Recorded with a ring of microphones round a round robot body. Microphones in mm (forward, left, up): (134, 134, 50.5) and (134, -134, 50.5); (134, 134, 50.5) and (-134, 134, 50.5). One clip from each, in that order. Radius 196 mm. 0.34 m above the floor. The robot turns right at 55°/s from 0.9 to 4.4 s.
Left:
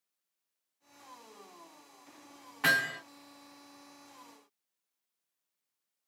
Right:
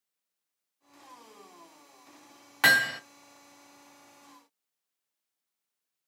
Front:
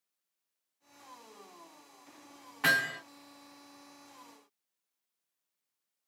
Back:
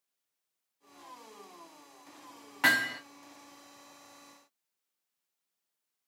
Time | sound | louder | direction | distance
2.6 | hammering | right 6 dB, back 1 dB | 110° right | 1.3 m